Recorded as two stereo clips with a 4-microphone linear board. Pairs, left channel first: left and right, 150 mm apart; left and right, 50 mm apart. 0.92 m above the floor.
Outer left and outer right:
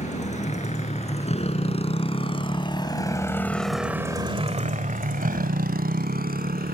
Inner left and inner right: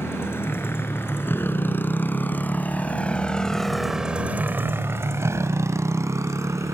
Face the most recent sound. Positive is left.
turn(degrees=-85)